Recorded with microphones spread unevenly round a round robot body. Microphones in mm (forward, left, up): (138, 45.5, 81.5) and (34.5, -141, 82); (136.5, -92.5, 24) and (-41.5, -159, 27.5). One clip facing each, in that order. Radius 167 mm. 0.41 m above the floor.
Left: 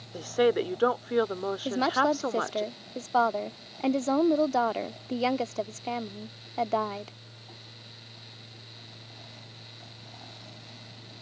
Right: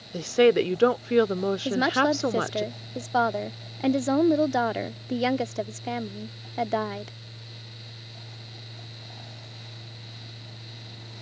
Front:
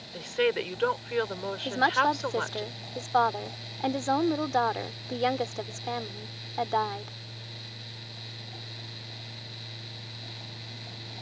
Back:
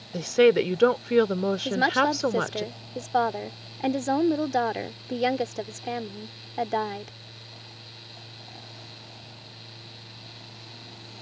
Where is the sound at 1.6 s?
175° right.